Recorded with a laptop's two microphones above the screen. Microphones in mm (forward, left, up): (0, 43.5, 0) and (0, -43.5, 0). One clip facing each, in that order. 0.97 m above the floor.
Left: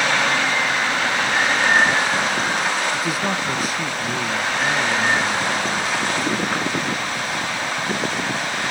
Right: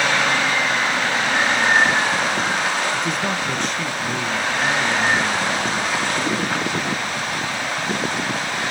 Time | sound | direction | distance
2.9 | a man speaking | 5° left (ahead or behind) | 0.8 m